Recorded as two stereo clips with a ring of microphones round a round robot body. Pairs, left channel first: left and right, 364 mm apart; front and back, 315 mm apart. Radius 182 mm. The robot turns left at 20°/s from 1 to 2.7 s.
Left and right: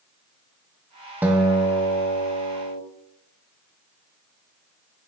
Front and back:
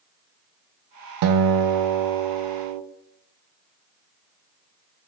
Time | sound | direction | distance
1.2 | a guitar | 175° right | 0.6 m